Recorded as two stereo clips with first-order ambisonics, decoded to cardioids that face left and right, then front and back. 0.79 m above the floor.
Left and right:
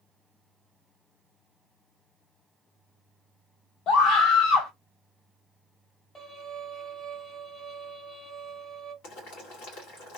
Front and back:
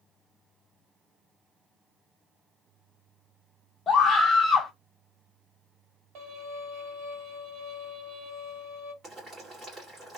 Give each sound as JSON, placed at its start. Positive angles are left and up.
{"t": 3.9, "sound": "a scream", "azimuth_deg": 60, "distance_m": 0.9}
{"t": 6.2, "sound": "a violin", "azimuth_deg": 155, "distance_m": 2.0}
{"t": 9.0, "sound": "boiling", "azimuth_deg": 105, "distance_m": 2.0}